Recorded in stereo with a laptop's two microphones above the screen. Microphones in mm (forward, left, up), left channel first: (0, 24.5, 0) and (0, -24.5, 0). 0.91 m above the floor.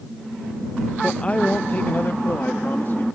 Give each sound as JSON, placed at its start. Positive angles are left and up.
{"t": 1.0, "sound": "a man speaking", "side_deg": 20}